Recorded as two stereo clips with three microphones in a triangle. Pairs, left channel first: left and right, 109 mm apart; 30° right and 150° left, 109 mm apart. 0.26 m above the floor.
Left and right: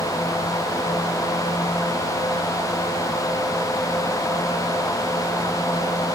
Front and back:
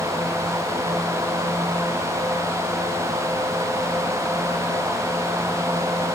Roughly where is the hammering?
No hammering in this recording.